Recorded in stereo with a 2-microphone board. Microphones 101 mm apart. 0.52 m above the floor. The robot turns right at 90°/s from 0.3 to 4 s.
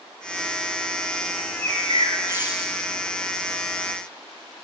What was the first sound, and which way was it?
A bird, 115° right.